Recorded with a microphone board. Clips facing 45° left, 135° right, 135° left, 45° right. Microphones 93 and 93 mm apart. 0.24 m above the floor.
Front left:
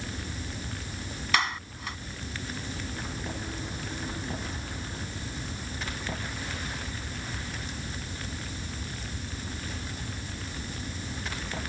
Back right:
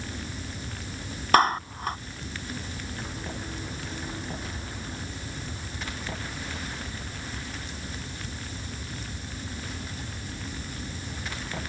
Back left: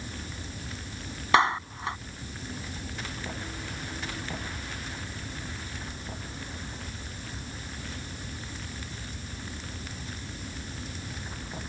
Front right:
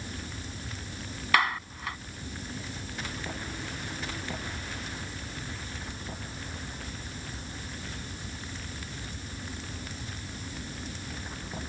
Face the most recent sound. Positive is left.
turn(degrees=-165)